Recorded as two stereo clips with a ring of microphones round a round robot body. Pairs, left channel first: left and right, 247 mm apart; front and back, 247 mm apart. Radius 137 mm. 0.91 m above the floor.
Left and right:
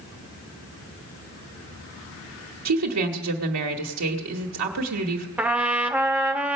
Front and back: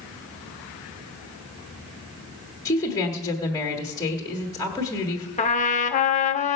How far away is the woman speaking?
About 1.5 m.